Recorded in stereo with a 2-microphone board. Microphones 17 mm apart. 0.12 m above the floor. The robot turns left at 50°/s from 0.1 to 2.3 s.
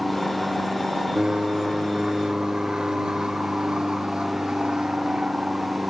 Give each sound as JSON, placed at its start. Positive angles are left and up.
{"t": 0.0, "sound": "an aircraft", "side_deg": 0}